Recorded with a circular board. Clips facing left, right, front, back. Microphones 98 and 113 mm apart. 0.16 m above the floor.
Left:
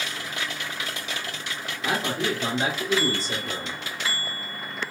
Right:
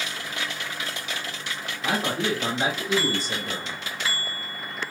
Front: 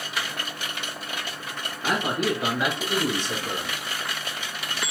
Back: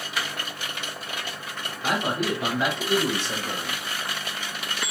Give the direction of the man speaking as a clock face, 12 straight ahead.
4 o'clock.